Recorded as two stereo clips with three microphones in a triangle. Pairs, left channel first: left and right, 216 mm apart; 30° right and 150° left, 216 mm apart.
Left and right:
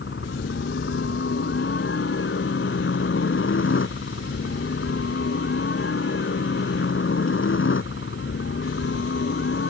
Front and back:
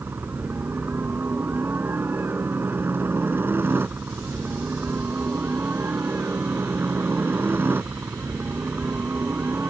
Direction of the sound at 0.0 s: 70° left.